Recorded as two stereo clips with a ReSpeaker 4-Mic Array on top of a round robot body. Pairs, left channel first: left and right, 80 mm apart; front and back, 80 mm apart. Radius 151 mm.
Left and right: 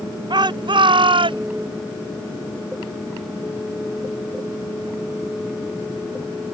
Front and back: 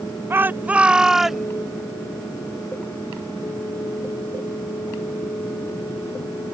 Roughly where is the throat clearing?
No throat clearing in this recording.